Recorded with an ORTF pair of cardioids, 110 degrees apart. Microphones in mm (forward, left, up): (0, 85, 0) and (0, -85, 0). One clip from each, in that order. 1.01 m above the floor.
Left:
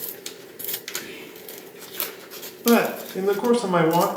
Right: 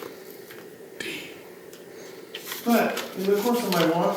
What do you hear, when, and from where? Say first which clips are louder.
1.0 s whispering: right 4 dB; 70° right, 0.6 m
2.6 s a man speaking: left 3 dB; 40° left, 0.7 m